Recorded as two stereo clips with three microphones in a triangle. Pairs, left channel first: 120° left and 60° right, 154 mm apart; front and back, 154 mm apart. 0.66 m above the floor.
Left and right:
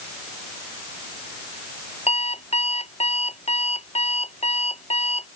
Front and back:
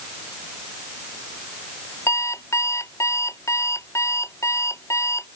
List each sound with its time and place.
2.1 s an alarm clock: 75° left